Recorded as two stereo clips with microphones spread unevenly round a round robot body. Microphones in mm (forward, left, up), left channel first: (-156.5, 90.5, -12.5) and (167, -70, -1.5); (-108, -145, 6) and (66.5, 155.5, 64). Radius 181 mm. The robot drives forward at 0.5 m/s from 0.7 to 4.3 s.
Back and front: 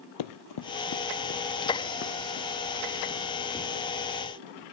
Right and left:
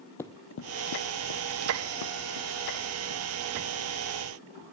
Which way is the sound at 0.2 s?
150° left.